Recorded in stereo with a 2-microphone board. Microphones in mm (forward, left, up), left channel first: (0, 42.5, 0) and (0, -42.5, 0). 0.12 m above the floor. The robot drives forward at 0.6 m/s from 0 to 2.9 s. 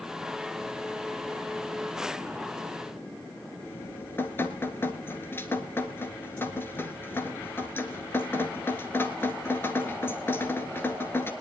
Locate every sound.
3.6 s dripping: 25° left (ahead or behind), 1.4 m